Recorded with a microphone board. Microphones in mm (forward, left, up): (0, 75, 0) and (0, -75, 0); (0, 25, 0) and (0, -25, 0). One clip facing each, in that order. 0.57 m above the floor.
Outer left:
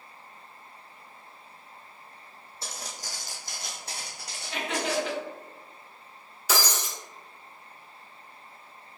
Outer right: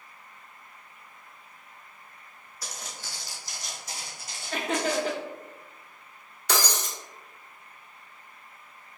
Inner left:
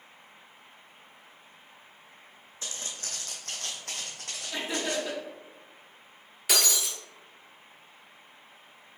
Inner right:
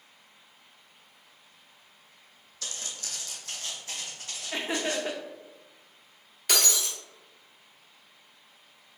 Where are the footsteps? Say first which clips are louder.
Outer left 1 dB, even; 25° left (ahead or behind), 1.1 m; by 5.1 s 70° left (ahead or behind), 2.0 m.